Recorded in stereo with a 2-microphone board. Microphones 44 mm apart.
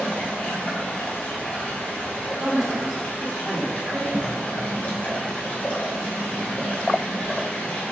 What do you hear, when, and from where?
0.0 s running water: 30° left (ahead or behind), 3 m
2.4 s a man speaking: 15° right (ahead or behind), 2 m
4.1 s a cough: 10° right (ahead or behind), 0.9 m